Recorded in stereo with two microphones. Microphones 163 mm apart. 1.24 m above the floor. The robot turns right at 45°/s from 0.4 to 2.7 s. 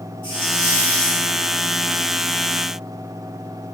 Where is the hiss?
150° left, 6 m; by 1.4 s 170° right, 6 m.